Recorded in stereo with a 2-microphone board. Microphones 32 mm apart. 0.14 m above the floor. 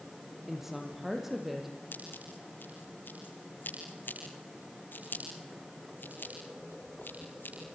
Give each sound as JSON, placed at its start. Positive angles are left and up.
{"t": 0.5, "sound": "a woman speaking", "side_deg": -10, "distance_m": 5.0}
{"t": 1.9, "sound": "scissors", "side_deg": 80, "distance_m": 8.0}